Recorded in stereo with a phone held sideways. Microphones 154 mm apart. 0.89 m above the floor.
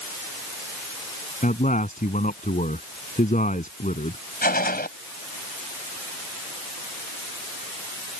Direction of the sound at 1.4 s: 55° left (ahead or behind).